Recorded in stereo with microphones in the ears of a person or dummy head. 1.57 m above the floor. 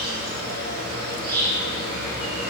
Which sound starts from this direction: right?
An insect, at 0.0 s.